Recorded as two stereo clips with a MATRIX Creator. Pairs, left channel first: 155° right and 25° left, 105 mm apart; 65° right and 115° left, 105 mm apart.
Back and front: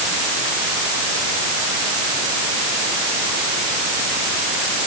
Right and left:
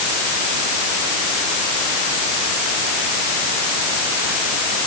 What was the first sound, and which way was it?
Only background noise.